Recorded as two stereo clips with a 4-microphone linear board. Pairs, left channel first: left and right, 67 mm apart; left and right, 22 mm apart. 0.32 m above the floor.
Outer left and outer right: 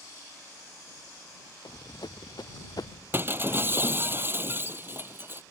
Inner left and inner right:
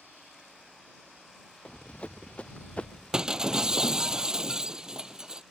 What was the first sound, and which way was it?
Running footsteps, 80° left.